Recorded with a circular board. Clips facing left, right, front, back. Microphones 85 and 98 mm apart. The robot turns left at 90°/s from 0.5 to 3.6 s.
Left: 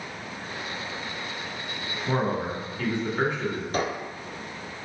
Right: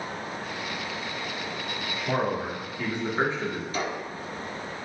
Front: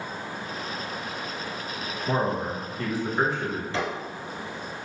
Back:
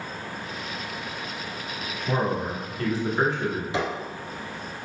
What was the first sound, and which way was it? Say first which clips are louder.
A man speaking: left 1 dB, even; 30° left.